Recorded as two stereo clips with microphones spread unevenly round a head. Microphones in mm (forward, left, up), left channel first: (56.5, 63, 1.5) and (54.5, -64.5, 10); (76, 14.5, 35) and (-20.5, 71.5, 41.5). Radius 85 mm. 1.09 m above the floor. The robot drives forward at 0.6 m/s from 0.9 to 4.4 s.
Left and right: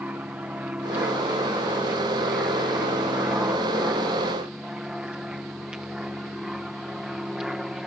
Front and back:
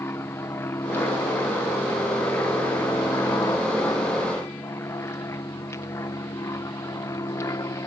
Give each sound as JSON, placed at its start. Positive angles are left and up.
{"t": 0.0, "sound": "an aircraft", "azimuth_deg": -30}